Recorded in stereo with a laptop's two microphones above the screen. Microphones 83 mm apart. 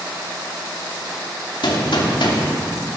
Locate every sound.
1.6 s a gunshot: 75° left (ahead or behind), 2.5 m